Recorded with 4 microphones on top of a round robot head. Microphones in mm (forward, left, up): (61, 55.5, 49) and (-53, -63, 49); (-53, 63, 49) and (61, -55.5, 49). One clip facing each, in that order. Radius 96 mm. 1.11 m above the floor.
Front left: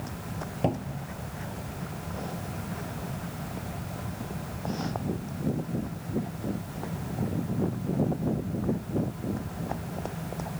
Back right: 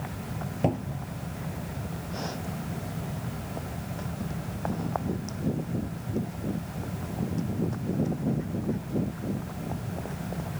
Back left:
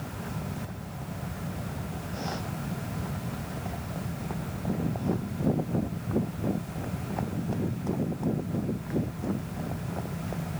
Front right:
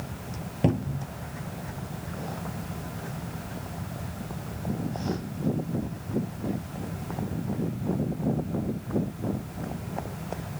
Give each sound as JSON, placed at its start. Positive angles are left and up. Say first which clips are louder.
{"t": 0.6, "sound": "a cupboard door", "louder": "back right 1 dB, front right 12 dB", "azimuth_deg": -45}